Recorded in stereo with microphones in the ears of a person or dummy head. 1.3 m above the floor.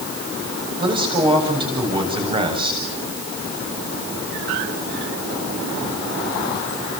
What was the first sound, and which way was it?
A man speaking, 30° right (ahead or behind).